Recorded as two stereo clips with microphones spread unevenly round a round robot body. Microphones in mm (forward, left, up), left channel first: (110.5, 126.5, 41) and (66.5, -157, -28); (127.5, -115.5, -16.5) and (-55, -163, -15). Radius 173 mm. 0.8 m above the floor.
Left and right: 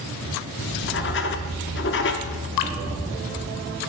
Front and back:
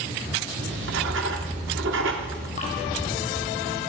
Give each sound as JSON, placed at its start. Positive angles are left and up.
{"t": 0.6, "sound": "writing", "azimuth_deg": 140, "distance_m": 0.7}
{"t": 2.6, "sound": "dripping", "azimuth_deg": 85, "distance_m": 1.2}